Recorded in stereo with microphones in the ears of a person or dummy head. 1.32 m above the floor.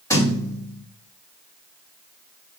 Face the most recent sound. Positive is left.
turn(degrees=15)  # may be behind; listen again after turning